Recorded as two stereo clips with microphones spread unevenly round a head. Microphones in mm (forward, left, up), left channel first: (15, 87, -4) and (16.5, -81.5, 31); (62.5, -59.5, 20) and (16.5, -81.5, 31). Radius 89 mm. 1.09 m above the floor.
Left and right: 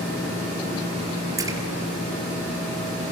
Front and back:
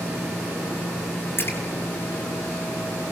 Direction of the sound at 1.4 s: 20° right.